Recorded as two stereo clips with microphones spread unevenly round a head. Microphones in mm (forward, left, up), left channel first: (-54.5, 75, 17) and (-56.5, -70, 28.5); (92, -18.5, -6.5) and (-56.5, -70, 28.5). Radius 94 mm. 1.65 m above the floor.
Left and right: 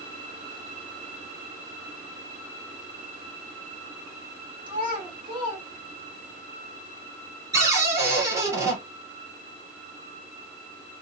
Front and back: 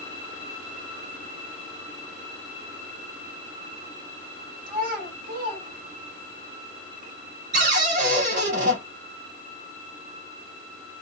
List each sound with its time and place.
4.7 s a child speaking: 145° right, 2 m
7.5 s a cupboard door: 155° right, 1.9 m